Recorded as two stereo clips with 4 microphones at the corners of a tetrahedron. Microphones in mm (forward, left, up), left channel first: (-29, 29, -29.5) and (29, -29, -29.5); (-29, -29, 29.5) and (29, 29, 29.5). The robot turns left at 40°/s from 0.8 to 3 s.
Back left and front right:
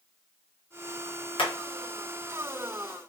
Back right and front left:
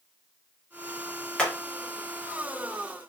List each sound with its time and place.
1.4 s hammering: 145° left, 0.8 m; by 1.5 s 140° left, 0.8 m